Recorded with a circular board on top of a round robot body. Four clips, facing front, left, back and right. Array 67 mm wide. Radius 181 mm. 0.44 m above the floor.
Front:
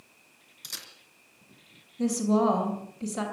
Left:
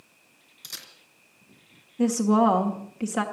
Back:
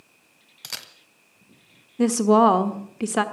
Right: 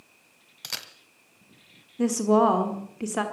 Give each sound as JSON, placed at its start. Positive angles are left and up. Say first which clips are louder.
{"t": 0.6, "sound": "a camera shutter", "louder": "right 6 dB, back 6 dB", "azimuth_deg": -130, "distance_m": 1.1}
{"t": 2.0, "sound": "a woman speaking", "louder": "even, back 8 dB", "azimuth_deg": 180, "distance_m": 1.5}